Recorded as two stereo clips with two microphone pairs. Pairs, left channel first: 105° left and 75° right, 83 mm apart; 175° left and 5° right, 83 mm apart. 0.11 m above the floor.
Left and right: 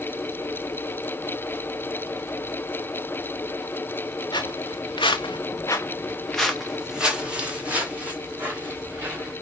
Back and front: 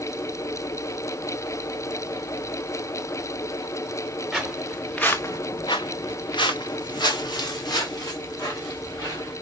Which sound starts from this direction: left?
Footsteps, at 4.3 s.